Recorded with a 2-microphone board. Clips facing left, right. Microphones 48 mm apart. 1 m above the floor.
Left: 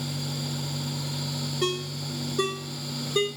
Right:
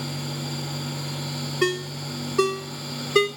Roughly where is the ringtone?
Right.